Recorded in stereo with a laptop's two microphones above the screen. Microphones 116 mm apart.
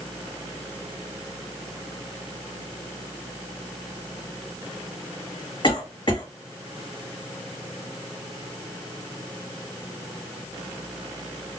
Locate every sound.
5.6 s a cough: 45° left (ahead or behind), 1.5 m